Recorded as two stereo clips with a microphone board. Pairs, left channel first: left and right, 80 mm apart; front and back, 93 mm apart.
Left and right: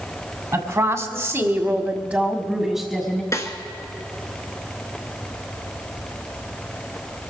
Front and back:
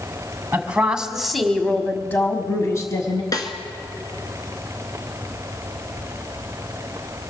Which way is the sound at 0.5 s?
115° right.